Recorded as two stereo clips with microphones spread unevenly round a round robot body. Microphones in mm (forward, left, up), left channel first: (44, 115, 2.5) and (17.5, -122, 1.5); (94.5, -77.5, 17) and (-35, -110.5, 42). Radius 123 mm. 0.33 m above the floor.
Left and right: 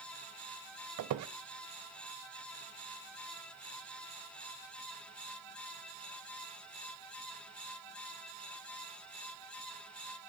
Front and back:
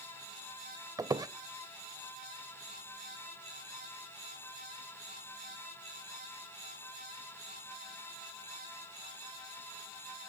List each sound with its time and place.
1.0 s a squeak: 95° right, 0.5 m